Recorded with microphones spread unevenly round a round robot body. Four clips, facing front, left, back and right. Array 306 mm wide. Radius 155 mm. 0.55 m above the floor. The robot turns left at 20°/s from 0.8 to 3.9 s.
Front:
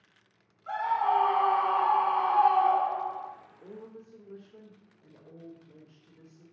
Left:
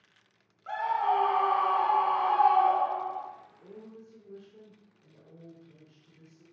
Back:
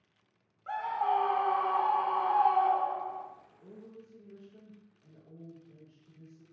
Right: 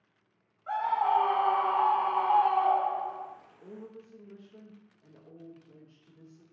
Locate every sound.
0.7 s a scream: 140° left, 2.5 m; by 3.3 s 95° left, 2.5 m
3.6 s a woman speaking: 15° right, 1.9 m; by 6.4 s 20° right, 1.9 m